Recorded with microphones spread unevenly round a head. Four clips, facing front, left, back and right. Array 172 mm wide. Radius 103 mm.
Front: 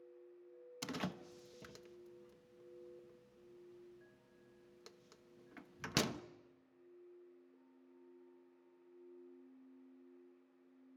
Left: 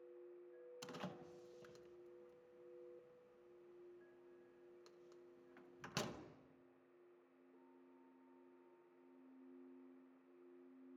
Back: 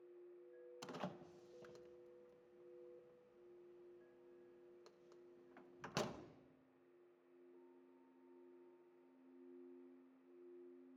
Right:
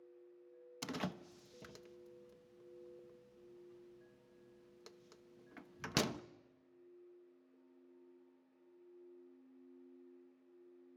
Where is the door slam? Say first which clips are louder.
Right 9 dB, front 6 dB; 40° right, 1.1 m.